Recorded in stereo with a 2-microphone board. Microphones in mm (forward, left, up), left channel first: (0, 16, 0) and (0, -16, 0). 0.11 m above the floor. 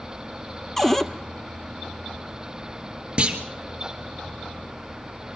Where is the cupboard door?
10° left (ahead or behind), 0.9 m.